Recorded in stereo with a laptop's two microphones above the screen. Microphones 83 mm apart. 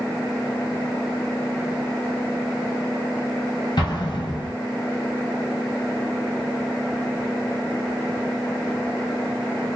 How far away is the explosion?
About 1.2 m.